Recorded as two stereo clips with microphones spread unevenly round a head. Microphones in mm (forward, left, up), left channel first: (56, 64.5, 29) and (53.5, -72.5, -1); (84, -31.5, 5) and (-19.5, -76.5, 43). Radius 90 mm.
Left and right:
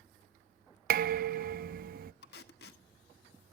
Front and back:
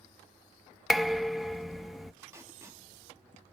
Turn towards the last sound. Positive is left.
turn(degrees=125)